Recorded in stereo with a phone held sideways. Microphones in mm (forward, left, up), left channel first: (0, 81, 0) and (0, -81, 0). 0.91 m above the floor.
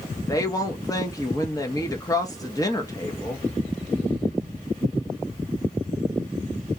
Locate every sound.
0.3 s a woman speaking: 20° left (ahead or behind), 0.6 m